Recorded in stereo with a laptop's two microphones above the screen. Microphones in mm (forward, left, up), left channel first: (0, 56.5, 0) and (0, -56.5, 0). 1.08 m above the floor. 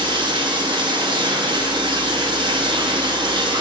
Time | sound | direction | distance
0.0 | running water | 45° right (ahead or behind) | 0.9 m